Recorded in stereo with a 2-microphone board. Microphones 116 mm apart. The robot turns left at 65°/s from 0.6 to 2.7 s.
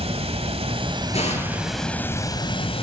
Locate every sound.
0.0 s running water: 105° right, 2.0 m; by 2.8 s 120° left, 2.0 m
1.1 s an explosion: 115° left, 7 m; by 1.9 s 70° left, 7 m